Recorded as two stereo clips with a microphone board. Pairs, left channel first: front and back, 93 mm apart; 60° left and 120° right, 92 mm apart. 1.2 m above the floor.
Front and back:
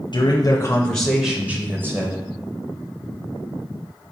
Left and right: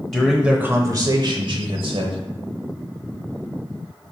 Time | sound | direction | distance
0.1 | a man speaking | 20° right | 0.6 m